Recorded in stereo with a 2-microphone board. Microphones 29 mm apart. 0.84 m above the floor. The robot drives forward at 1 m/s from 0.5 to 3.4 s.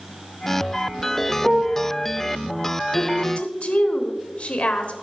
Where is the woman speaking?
50° left (ahead or behind), 1.4 m; by 4.9 s 40° left (ahead or behind), 1.7 m.